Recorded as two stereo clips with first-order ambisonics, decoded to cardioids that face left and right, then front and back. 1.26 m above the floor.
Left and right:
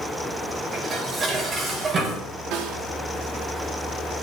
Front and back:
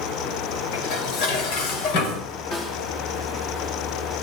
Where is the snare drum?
60° right, 3.5 m.